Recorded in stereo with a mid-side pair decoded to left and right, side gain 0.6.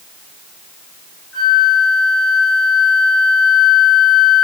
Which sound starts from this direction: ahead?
A flute, at 1.3 s.